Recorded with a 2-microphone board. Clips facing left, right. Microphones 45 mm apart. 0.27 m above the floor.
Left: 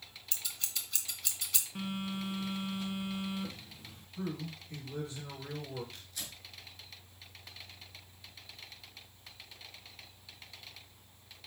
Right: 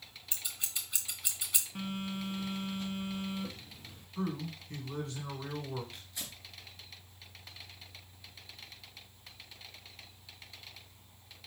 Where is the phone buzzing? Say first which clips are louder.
Left 1 dB; centre (ahead or behind), 0.8 m.